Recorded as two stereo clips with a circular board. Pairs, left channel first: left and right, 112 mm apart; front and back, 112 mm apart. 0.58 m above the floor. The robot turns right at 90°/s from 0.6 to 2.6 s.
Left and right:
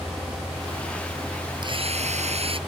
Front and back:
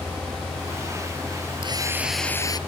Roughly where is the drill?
Behind right.